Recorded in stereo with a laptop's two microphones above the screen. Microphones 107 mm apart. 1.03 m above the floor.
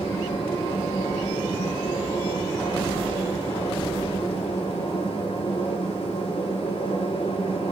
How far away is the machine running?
About 2.5 m.